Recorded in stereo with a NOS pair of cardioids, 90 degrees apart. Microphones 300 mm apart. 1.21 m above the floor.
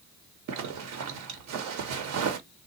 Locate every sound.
0.5 s a zipper: 70° right, 1.0 m